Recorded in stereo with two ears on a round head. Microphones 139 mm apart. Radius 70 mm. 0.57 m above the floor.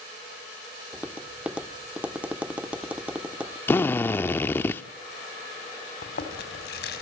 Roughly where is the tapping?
Centre.